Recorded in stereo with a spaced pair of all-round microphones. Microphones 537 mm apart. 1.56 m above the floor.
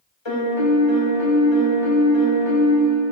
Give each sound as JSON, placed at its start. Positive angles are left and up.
{"t": 0.2, "sound": "a piano", "side_deg": 55, "distance_m": 1.6}